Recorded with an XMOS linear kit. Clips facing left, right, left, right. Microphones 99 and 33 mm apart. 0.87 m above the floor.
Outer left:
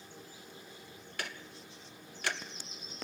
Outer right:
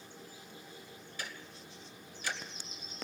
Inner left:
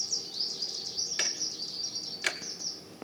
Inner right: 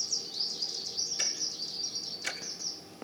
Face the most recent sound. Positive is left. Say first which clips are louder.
# outer left 3 dB, inner left 4 dB
turn(degrees=65)  # may be behind; listen again after turning